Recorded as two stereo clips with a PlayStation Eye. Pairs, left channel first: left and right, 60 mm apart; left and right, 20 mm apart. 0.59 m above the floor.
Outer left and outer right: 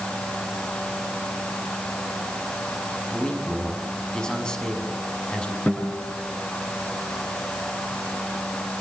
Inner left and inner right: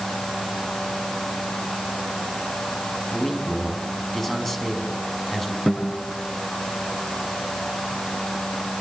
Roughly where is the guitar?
Left.